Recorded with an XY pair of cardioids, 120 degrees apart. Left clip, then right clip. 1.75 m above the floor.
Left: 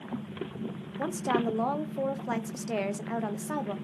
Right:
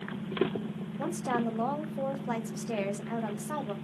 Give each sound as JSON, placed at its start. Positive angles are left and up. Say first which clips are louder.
{"t": 1.0, "sound": "a woman speaking", "louder": "left 3 dB", "azimuth_deg": 20, "distance_m": 0.6}